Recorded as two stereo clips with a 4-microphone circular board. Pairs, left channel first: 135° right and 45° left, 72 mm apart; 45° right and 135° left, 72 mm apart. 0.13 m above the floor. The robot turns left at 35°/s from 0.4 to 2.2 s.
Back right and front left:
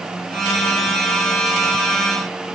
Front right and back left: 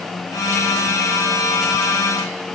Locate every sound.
Only background noise.